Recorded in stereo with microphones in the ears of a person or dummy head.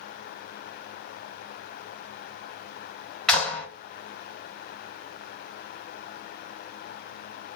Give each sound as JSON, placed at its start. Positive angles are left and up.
{"t": 3.3, "sound": "a clap", "side_deg": 0, "distance_m": 1.5}